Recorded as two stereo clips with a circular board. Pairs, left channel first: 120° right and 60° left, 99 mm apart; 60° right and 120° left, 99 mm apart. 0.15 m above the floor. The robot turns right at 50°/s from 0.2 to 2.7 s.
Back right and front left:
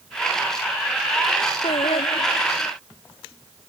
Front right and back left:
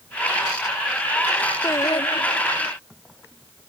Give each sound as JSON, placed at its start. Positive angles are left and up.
{"t": 1.6, "sound": "singing", "azimuth_deg": -120}